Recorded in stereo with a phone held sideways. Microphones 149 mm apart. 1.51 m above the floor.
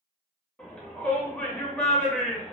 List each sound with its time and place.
0.6 s a shout: 10° left (ahead or behind), 1.4 m